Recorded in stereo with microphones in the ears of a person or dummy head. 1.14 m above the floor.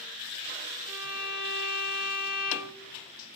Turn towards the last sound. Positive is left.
turn(degrees=-30)  # may be behind; listen again after turning